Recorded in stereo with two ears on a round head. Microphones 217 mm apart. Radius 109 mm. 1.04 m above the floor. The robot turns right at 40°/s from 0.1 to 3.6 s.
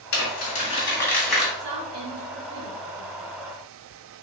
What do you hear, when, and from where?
0.1 s crumpling: 50° left (ahead or behind), 2 m; by 1.5 s 5° right (ahead or behind), 2 m
1.6 s a woman speaking: 50° right (ahead or behind), 1.6 m; by 3.3 s 45° right (ahead or behind), 1.6 m